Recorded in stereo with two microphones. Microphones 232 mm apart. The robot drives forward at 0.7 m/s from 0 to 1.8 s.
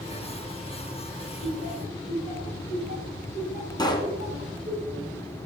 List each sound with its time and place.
1.4 s laughter: 35° right (ahead or behind), 3 m; by 4.8 s 40° right (ahead or behind), 3 m
3.8 s a pop: 20° left (ahead or behind), 1.3 m